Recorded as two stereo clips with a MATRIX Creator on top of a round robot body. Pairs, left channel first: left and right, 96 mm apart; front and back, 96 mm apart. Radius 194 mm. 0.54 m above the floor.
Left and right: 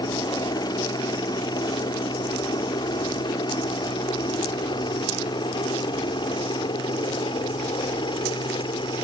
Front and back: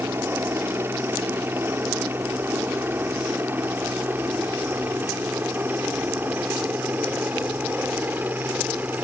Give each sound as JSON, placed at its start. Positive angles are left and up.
{"t": 0.0, "sound": "a helicopter", "azimuth_deg": 120}